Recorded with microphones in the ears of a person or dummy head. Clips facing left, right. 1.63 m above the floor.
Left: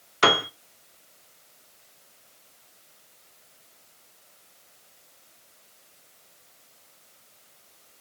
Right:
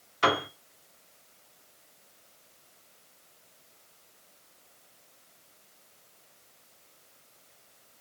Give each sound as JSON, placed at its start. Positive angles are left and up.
{"t": 0.2, "sound": "a piano", "side_deg": 65, "distance_m": 1.0}